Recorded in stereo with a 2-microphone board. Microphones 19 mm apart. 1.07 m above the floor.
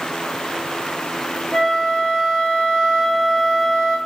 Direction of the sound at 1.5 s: 30° left (ahead or behind).